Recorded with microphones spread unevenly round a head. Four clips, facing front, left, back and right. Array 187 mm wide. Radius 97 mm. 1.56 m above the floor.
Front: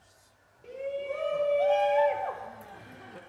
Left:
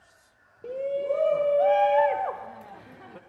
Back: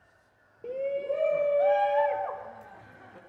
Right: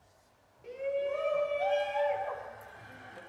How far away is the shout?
About 1.4 m.